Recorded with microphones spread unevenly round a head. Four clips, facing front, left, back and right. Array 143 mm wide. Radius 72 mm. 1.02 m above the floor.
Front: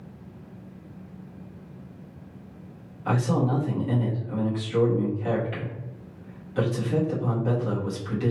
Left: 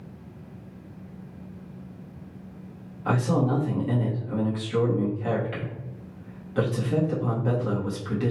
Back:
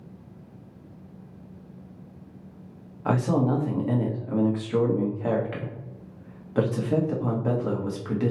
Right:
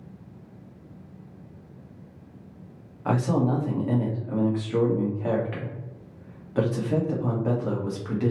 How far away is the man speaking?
About 1.0 m.